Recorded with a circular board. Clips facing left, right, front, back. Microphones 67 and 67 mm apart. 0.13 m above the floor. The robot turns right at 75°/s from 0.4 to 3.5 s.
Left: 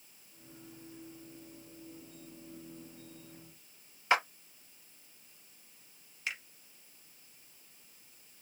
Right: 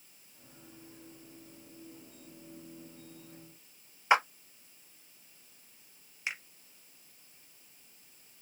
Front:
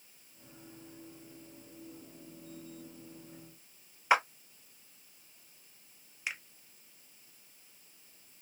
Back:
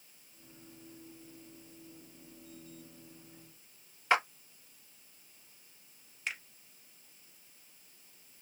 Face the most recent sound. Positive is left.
turn(degrees=-65)